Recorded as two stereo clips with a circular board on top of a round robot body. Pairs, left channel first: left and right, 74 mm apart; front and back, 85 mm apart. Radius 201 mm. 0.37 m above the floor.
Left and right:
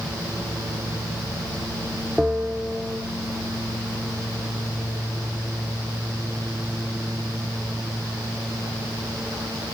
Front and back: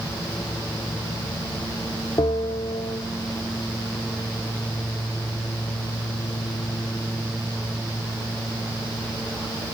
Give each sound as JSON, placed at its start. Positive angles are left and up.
{"t": 2.2, "sound": "a bell", "azimuth_deg": -5, "distance_m": 2.0}